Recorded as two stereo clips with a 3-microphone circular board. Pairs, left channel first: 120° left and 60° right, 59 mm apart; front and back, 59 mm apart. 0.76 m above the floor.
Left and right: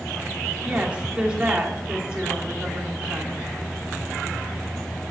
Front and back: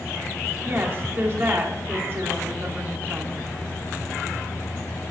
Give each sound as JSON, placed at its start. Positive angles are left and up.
{"t": 0.7, "sound": "a woman speaking", "azimuth_deg": -130, "distance_m": 2.0}